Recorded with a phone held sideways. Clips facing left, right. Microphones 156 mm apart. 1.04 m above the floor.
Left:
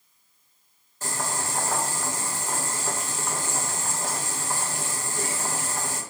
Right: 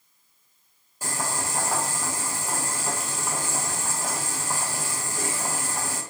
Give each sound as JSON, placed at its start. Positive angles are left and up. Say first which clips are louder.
{"t": 1.0, "sound": "boiling", "louder": "even", "side_deg": -10, "distance_m": 0.7}